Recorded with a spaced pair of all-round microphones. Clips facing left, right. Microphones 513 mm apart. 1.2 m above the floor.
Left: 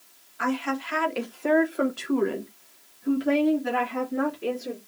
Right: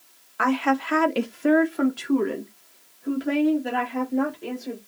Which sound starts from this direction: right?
A woman speaking, at 0.4 s.